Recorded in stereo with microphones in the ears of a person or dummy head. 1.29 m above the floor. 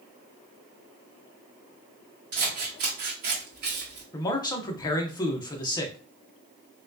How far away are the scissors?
About 1.1 m.